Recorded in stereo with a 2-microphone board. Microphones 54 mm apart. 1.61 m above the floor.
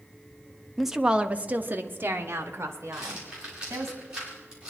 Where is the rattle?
20° right (ahead or behind), 5 m.